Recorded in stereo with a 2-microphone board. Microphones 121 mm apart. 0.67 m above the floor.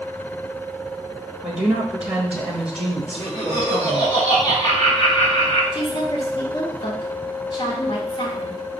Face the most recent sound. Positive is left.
turn(degrees=40)  # may be behind; listen again after turning